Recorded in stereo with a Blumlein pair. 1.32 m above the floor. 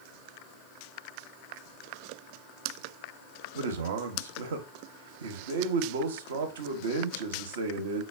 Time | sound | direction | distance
3.5 | a man speaking | 60° right | 0.5 m